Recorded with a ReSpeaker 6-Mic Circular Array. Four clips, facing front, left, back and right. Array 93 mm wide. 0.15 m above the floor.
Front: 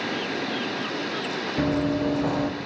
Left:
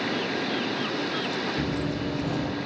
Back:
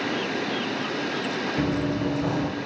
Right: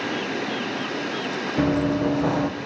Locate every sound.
1.6 s running footsteps: 75° right, 1.4 m